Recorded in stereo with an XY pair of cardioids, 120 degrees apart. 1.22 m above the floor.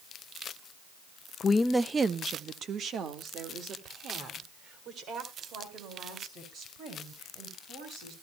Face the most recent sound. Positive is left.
turn(degrees=-65)